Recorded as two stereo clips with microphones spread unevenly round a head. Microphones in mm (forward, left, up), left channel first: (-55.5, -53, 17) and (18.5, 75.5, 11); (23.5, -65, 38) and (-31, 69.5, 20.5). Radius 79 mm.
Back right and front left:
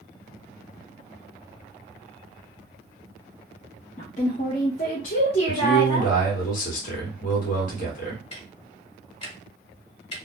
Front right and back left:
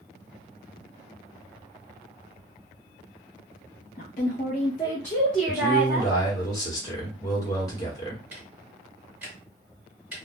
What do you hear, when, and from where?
4.0 s a woman speaking: 80° right, 0.7 m; by 6.1 s 175° right, 1.1 m
5.5 s a man speaking: 135° right, 1.3 m
8.3 s ticking: 165° right, 1.2 m